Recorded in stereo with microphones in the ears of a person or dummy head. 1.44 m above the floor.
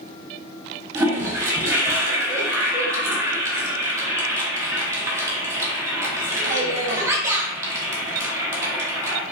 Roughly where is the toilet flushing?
Centre.